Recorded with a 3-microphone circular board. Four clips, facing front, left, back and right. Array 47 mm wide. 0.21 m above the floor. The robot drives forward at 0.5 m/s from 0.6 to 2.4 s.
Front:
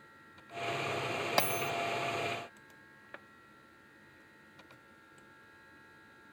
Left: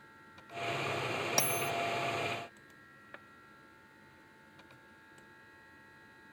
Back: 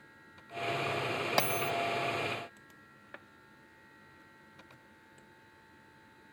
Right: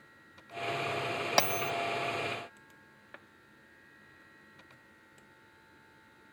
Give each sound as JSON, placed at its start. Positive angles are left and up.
{"t": 1.4, "sound": "a bell", "azimuth_deg": -90}